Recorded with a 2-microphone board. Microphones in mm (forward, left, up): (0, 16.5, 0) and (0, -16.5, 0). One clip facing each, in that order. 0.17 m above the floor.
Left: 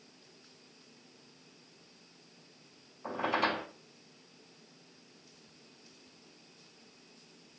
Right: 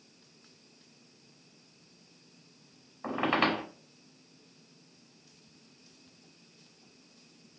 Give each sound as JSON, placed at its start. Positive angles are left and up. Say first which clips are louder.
{"t": 3.0, "sound": "a squeak", "louder": "right 3 dB", "side_deg": -50, "distance_m": 0.7}